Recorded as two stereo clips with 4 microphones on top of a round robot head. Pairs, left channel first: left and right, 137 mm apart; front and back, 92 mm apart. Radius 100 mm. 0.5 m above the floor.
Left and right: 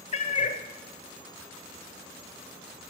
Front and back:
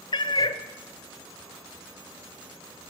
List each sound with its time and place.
0.1 s a cat meowing: 40° left, 0.7 m